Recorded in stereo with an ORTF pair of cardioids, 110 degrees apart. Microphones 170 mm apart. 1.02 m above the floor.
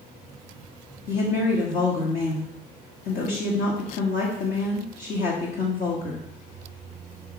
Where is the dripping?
No dripping in this recording.